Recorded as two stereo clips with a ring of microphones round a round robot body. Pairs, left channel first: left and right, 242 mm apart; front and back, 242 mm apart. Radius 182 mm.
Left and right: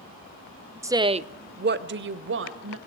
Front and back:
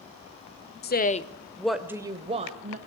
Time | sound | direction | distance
0.8 | a woman speaking | 15° right | 1.0 m